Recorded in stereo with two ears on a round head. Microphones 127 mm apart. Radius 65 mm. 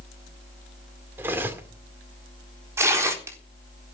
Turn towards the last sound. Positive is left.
turn(degrees=-20)  # may be behind; listen again after turning